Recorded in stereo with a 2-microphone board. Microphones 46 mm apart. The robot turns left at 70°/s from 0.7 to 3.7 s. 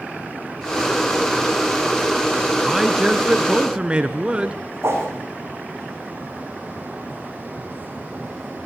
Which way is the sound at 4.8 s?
70° right (ahead or behind).